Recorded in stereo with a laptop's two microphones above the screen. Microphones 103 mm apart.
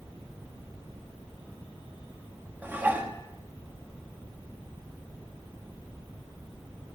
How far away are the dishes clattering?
About 1.0 m.